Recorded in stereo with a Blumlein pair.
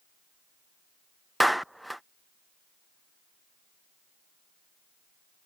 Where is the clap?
Straight ahead.